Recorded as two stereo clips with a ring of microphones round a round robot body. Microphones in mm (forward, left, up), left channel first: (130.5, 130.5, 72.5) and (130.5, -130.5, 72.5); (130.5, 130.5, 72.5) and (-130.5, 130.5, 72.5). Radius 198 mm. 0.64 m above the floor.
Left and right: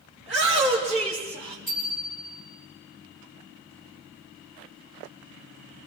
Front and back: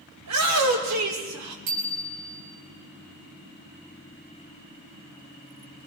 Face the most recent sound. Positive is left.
turn(degrees=165)